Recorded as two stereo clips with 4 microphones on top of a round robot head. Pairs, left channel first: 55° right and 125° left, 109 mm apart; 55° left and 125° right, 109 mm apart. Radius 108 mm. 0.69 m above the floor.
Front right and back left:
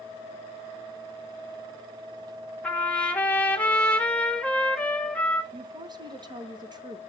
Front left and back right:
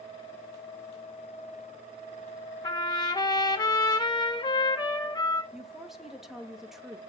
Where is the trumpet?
20° left, 1.6 m.